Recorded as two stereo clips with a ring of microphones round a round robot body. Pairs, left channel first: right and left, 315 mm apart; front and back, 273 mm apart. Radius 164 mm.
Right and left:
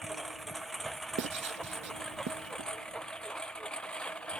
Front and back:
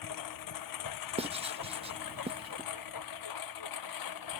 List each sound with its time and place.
0.0 s a lawn mower: straight ahead; by 4.4 s 5° right
1.2 s writing: 120° left